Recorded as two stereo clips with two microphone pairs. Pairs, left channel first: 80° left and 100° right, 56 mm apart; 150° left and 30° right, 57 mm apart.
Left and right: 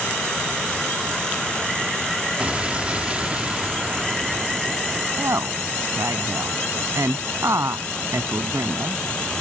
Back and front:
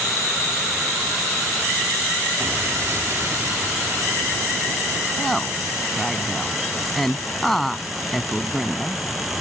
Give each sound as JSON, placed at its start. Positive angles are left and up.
{"t": 2.4, "sound": "an explosion", "azimuth_deg": -35}
{"t": 5.2, "sound": "a woman speaking", "azimuth_deg": -130}